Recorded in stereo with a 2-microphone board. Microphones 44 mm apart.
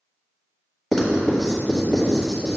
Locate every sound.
0.9 s writing: centre (ahead or behind), 1.6 m